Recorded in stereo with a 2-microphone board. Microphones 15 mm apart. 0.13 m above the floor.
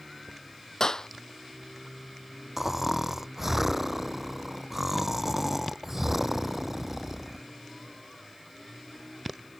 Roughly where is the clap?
Left.